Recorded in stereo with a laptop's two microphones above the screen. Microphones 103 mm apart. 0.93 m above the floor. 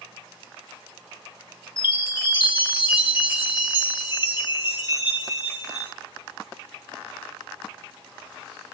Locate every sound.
1.8 s a chime: 50° left (ahead or behind), 1.4 m